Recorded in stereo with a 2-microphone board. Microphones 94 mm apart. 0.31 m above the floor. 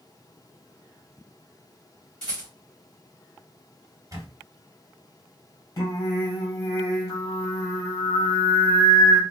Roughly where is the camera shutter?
Right.